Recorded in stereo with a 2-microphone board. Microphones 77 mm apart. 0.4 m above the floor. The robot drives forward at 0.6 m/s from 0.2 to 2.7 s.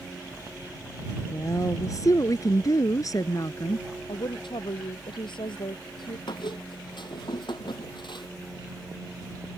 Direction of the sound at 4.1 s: 85° left.